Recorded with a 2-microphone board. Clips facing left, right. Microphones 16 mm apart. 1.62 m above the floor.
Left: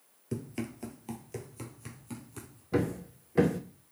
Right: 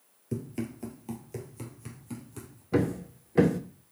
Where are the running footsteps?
15° left (ahead or behind), 1.7 m; by 2.6 s 5° left (ahead or behind), 2.5 m.